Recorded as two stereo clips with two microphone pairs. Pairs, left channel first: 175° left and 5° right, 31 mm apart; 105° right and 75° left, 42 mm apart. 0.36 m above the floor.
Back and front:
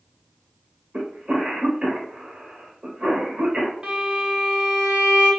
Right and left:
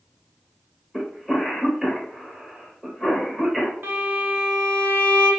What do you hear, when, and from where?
0.9 s a cough: 10° right, 0.9 m
3.8 s a violin: 50° left, 0.8 m